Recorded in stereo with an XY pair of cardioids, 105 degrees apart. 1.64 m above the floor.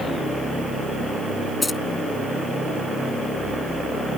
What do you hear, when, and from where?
1.6 s keys jangling: 20° left